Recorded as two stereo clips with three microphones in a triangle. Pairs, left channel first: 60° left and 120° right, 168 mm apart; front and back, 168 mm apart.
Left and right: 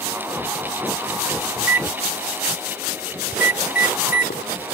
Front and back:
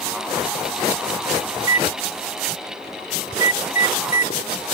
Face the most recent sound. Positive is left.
turn(degrees=40)